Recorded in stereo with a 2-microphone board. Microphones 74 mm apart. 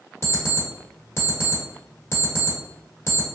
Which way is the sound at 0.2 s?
40° left (ahead or behind).